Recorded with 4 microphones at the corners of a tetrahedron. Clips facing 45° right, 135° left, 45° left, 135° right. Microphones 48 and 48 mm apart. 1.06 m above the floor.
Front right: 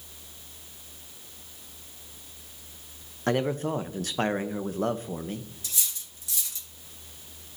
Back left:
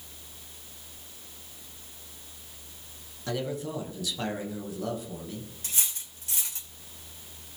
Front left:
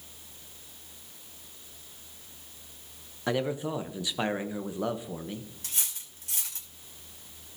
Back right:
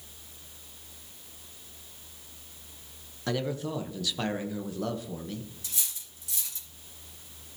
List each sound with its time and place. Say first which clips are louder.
3.3 s a man speaking: front right 6 dB, front left 2 dB; 20° right, 0.8 m
5.6 s cutlery clinking: back left 1 dB, front left 1 dB; 85° left, 2.5 m